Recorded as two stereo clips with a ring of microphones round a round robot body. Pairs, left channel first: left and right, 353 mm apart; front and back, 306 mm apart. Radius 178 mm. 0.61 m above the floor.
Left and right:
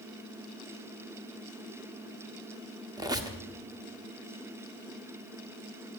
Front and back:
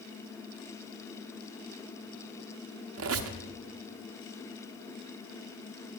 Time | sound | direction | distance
3.0 | a squeak | 165° right | 0.8 m